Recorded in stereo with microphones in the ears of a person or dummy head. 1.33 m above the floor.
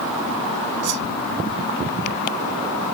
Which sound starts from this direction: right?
A whoosh, at 0.8 s.